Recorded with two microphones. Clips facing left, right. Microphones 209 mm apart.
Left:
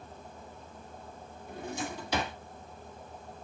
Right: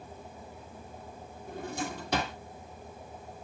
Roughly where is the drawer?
Right.